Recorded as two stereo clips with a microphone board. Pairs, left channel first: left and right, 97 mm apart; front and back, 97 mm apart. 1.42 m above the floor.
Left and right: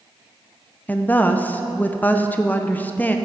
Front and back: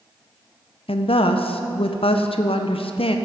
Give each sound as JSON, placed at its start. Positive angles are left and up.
{"t": 0.9, "sound": "a woman speaking", "azimuth_deg": 15, "distance_m": 0.5}